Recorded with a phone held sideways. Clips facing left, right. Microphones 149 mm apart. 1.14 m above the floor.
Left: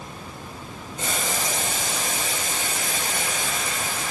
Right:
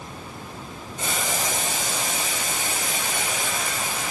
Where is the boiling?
70° left (ahead or behind), 1.5 m.